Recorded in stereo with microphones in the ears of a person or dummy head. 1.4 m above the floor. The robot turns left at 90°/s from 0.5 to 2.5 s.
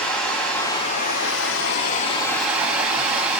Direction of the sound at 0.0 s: 175° left.